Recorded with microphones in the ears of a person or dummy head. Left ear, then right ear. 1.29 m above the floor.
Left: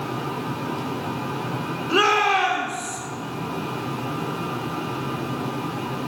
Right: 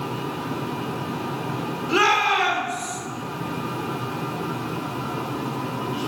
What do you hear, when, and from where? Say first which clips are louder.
1.9 s a shout: even; 45° right (ahead or behind), 3 m